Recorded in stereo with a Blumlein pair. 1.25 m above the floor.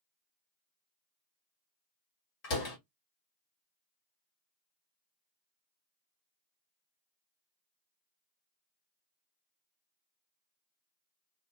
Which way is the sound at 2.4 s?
40° left.